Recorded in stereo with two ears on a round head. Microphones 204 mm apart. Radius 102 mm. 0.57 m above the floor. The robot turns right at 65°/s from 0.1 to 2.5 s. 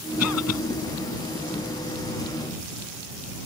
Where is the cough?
75° left (ahead or behind).